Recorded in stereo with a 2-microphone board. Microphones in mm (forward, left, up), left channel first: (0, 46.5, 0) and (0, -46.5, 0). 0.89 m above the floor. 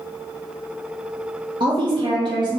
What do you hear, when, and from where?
1.6 s a woman speaking: 50° right (ahead or behind), 0.6 m